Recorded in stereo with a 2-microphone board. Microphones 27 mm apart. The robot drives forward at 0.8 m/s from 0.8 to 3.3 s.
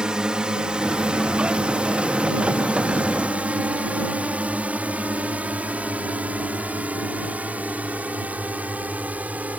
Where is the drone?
30° right (ahead or behind); by 9.6 s 70° right (ahead or behind).